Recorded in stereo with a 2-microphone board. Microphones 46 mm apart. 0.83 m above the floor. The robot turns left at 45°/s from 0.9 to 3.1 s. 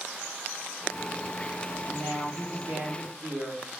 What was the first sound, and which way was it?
A woman speaking, 60° right.